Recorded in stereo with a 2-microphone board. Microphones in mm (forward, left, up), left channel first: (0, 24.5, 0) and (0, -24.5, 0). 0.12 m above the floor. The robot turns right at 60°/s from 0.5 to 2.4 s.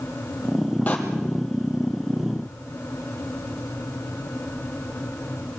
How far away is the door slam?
About 3 m.